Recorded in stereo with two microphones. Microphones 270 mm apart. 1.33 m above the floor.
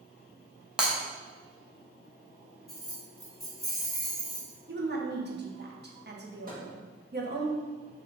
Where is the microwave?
35° right (ahead or behind), 1.4 m.